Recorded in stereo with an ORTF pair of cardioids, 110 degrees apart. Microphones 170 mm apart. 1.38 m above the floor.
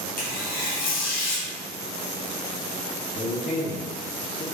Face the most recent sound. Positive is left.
turn(degrees=35)